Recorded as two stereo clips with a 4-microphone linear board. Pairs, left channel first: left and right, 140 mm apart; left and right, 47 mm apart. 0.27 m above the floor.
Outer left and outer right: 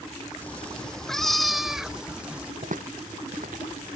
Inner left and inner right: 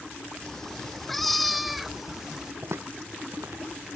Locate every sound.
0.4 s a cat meowing: 10° left (ahead or behind); by 2.5 s 10° right (ahead or behind)
2.6 s footsteps: 70° right (ahead or behind); by 3.7 s 80° right